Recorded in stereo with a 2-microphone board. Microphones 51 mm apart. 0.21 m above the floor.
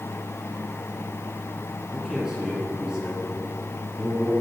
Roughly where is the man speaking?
Centre.